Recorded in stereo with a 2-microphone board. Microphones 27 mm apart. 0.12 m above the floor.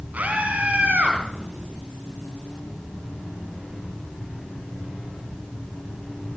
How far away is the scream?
About 4 m.